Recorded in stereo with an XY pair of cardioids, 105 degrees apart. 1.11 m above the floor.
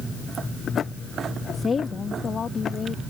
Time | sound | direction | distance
1.5 | a woman speaking | 35° left | ?